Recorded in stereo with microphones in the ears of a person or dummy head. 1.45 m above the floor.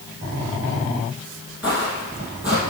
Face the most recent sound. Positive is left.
turn(degrees=-10)  # may be behind; listen again after turning